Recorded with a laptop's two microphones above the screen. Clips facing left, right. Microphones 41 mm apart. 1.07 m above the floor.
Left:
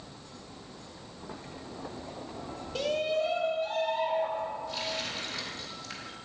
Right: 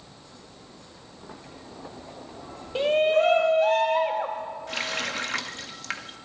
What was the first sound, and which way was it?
A shout, 25° right (ahead or behind).